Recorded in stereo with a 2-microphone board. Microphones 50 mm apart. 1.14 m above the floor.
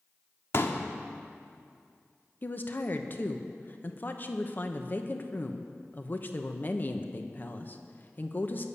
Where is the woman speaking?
40° left (ahead or behind), 1.0 m.